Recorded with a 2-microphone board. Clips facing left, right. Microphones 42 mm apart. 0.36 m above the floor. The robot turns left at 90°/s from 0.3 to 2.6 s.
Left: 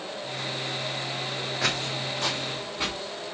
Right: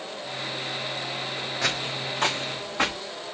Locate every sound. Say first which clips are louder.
1.6 s footsteps: even; 5° left (ahead or behind), 1.5 m; by 3.0 s 80° right, 2.5 m